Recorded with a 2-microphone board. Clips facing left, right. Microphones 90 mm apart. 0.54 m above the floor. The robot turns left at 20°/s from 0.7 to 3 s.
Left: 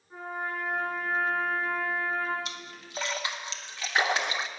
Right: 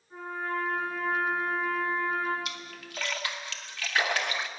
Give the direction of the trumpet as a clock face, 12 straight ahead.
11 o'clock.